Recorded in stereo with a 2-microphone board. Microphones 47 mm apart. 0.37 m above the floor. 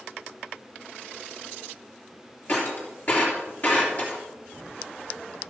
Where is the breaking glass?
40° left (ahead or behind), 3 m.